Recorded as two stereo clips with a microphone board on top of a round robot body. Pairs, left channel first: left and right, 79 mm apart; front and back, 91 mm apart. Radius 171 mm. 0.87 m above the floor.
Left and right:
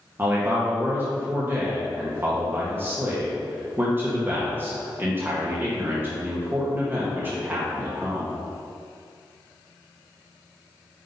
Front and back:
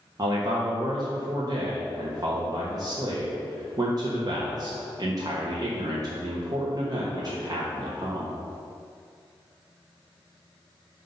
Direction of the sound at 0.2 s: 145° right.